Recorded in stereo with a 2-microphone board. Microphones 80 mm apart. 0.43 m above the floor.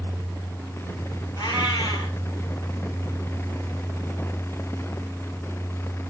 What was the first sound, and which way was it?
A cat meowing, 55° left (ahead or behind).